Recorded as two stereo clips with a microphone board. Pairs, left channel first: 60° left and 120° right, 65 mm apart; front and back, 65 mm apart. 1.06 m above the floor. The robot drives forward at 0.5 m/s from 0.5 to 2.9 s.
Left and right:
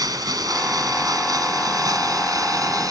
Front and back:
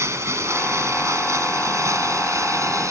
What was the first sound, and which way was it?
Running water, 135° right.